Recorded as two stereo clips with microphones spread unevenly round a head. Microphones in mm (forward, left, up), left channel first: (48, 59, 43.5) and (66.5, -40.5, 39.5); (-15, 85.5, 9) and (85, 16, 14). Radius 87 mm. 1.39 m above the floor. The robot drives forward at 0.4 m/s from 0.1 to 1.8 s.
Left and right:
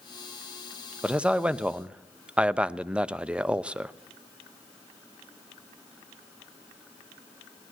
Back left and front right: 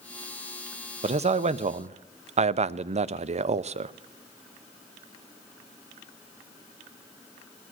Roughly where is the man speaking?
Ahead.